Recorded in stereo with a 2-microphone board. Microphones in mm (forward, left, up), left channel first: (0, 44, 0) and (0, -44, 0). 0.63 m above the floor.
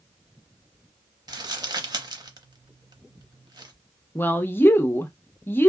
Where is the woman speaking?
25° left (ahead or behind), 0.5 m.